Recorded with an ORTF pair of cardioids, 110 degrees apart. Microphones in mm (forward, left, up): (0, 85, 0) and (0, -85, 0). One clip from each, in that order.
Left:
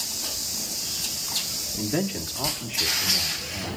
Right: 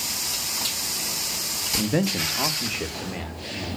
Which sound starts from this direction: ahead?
A man speaking, at 1.8 s.